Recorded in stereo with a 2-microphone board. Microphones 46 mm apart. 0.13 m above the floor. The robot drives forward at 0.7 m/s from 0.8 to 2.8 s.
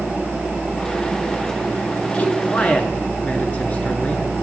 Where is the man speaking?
35° left (ahead or behind), 1.2 m; by 4.3 s 30° left (ahead or behind), 1.4 m.